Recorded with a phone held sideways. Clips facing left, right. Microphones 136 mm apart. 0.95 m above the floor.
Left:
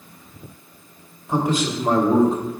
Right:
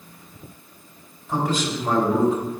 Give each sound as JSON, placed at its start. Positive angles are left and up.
{"t": 1.3, "sound": "a man speaking", "side_deg": 20, "distance_m": 2.5}